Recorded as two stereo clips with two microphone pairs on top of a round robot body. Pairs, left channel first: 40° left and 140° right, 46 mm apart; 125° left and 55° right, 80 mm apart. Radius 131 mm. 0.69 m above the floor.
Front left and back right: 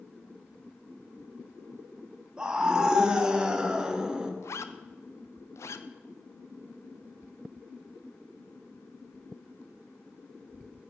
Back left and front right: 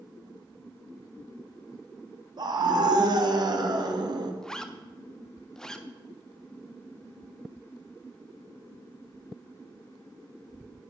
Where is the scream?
65° right, 1.5 m.